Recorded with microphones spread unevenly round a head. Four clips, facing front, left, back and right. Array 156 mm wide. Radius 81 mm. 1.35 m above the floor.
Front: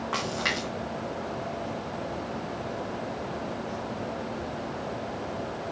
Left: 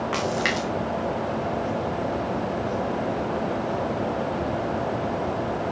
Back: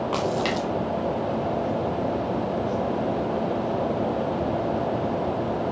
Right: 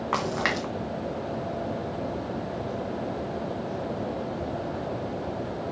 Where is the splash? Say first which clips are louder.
Even, back 6 dB; 135° right, 0.8 m.